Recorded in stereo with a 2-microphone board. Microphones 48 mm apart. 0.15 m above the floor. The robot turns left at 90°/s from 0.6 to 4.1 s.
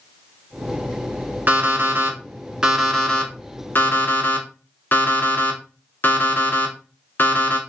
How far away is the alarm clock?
About 0.8 m.